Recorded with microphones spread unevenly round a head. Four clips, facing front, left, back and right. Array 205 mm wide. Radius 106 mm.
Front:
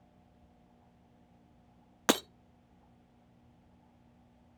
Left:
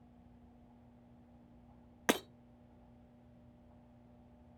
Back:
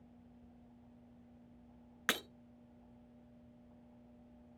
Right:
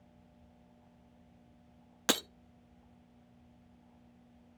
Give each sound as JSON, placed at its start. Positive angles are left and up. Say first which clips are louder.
{"t": 2.1, "sound": "breaking glass", "louder": "left 1 dB, front 10 dB", "azimuth_deg": 5, "distance_m": 0.7}